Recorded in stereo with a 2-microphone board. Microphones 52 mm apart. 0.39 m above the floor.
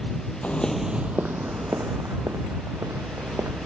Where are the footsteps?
35° left (ahead or behind); by 3.7 s 80° right.